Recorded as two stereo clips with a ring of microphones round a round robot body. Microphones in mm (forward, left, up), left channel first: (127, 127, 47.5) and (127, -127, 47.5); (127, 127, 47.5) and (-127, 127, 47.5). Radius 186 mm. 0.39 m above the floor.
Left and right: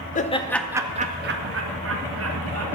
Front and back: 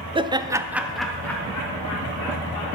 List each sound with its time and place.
0.1 s laughter: 120° left, 0.9 m; by 2.7 s 75° right, 2.0 m